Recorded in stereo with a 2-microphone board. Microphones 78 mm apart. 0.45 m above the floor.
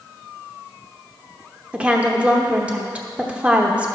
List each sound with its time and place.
1.7 s a woman speaking: 15° right (ahead or behind), 0.7 m